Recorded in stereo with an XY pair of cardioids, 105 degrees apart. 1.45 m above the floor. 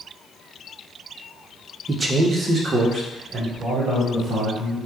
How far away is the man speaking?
About 0.7 m.